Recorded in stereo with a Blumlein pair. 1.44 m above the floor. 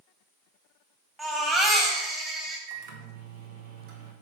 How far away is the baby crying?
About 3.5 m.